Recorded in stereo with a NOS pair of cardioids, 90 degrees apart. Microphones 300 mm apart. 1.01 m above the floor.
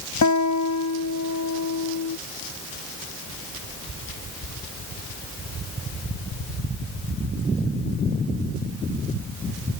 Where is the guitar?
60° left.